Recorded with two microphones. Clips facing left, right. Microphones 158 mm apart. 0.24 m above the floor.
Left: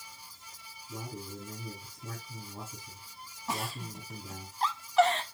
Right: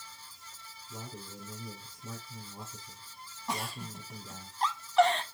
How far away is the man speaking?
About 6 m.